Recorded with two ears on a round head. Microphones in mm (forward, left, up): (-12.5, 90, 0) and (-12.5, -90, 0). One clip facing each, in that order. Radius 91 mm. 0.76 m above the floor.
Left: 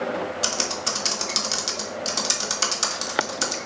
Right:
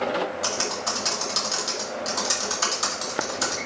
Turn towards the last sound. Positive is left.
turn(degrees=35)  # may be behind; listen again after turning